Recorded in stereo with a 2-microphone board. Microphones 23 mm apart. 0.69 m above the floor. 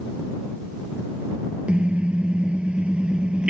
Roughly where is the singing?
I don't hear singing.